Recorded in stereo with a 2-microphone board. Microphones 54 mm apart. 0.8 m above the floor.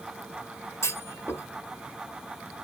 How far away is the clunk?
About 0.8 m.